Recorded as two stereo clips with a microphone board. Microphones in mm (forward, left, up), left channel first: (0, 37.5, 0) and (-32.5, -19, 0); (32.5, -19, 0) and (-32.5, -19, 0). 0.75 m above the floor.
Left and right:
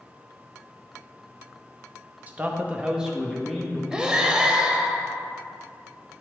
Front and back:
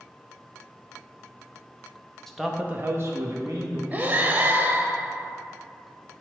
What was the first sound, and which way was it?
A man speaking, 75° right.